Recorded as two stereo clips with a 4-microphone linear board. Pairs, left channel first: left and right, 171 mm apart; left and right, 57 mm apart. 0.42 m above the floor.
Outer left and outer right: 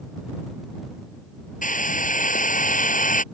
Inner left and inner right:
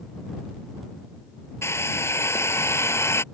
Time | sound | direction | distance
1.6 | a hair dryer | 50° left (ahead or behind) | ?